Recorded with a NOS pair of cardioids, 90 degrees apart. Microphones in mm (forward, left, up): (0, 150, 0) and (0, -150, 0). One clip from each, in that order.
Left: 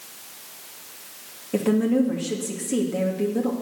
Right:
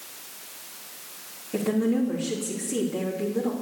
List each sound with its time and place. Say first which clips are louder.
1.5 s a woman speaking: left 4 dB; 35° left, 2.5 m